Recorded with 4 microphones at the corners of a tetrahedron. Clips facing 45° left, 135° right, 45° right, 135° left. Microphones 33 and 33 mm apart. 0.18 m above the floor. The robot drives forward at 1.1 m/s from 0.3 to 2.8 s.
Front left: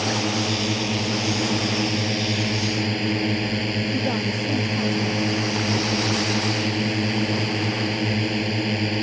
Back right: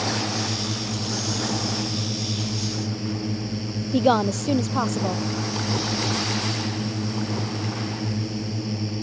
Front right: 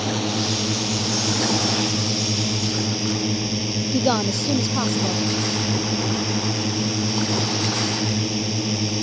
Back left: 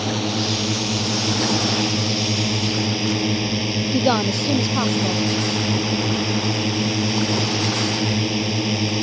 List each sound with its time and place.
0.0 s a drone: 55° left; by 9.0 s 70° left
3.9 s a woman speaking: 145° right